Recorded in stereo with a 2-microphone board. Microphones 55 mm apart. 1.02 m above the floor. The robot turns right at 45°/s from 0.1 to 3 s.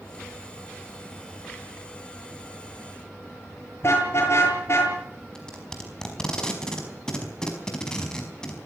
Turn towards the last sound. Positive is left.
turn(degrees=10)  # may be behind; listen again after turning